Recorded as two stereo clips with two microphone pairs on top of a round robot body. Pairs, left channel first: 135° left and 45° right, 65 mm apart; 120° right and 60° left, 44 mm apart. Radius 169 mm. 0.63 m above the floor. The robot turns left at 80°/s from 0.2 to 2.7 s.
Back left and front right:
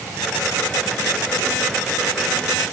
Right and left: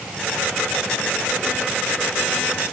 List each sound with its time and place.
Only background noise.